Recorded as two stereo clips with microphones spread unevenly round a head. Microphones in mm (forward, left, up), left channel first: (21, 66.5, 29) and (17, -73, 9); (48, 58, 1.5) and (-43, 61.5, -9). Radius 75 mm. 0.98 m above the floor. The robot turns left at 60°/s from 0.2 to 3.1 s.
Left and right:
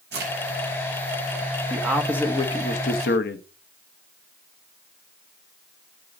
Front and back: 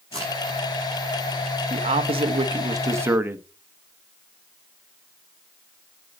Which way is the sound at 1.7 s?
165° right.